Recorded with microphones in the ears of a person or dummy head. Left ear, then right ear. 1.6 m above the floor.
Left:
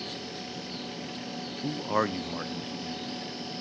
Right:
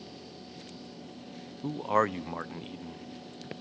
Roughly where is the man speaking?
Centre.